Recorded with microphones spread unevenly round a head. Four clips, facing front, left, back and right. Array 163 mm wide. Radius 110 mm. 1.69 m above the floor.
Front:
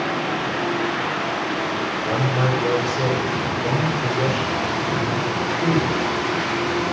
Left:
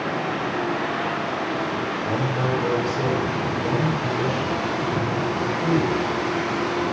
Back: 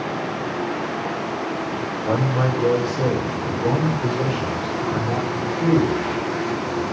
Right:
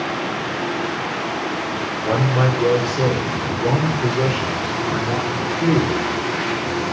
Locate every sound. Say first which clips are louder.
2.0 s a man speaking: right 8 dB, back 2 dB; 95° right, 8 m